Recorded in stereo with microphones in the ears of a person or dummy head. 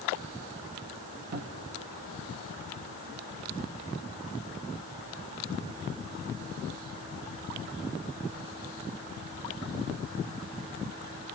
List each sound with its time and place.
1.3 s a cupboard door: 50° right (ahead or behind), 0.9 m